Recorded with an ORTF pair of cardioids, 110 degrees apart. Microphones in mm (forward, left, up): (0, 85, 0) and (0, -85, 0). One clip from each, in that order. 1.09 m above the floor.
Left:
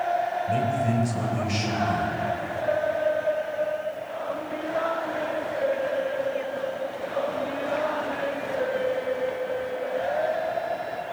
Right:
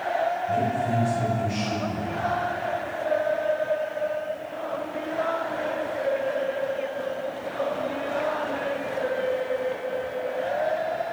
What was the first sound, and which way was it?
A man speaking, 55° left.